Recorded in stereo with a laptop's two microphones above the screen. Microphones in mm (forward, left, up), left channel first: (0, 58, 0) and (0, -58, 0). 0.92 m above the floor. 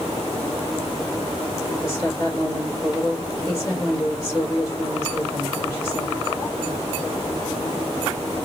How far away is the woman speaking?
About 3 m.